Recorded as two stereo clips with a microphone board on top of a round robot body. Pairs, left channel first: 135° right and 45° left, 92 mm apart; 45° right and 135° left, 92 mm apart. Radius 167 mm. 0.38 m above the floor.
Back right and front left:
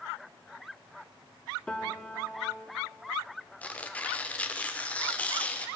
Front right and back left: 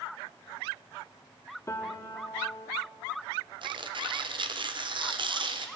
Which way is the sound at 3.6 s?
150° left.